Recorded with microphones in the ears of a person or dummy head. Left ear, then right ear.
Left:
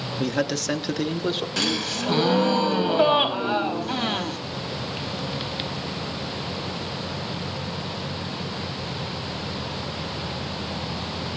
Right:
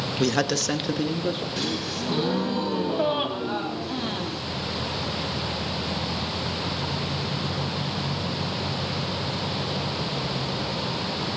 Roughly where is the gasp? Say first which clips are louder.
Left 4 dB; left.